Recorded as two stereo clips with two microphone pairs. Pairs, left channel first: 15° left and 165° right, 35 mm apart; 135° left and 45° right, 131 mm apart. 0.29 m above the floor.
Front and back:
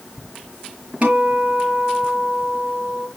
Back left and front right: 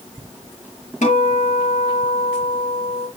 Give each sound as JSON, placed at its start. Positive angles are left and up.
{"t": 1.0, "sound": "a guitar", "azimuth_deg": 145, "distance_m": 3.0}